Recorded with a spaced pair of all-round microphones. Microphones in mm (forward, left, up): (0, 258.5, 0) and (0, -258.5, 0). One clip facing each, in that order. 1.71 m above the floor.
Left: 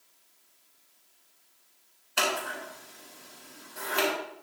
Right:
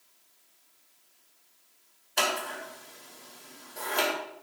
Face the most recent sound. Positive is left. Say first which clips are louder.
# left 1 dB
turn(degrees=30)  # may be behind; listen again after turning